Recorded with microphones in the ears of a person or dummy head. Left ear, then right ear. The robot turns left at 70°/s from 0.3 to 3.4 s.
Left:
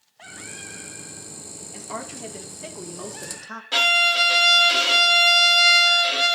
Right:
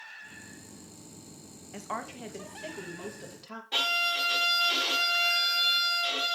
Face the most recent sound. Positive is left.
turn(degrees=55)  # may be behind; listen again after turning